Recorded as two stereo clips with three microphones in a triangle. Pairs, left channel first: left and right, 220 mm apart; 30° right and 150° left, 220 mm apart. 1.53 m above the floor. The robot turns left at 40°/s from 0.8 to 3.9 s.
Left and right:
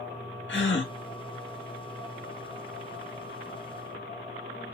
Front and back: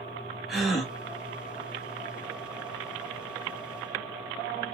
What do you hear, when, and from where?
0.5 s a gasp: 60° left, 1.8 m; by 0.9 s 55° left, 1.8 m